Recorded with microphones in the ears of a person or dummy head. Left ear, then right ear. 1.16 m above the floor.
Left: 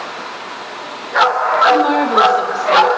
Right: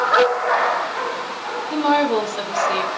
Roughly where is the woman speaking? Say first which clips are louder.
Left 5 dB; centre.